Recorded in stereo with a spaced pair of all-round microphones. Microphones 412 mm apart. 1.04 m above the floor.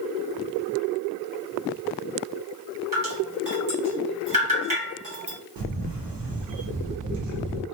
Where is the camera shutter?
80° right, 0.7 m.